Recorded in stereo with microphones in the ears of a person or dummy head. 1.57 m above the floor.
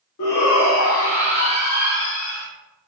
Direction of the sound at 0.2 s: 80° left.